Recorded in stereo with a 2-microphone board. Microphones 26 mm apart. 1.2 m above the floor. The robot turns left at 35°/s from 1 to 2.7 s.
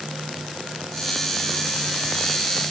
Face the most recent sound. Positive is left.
No sound to turn to.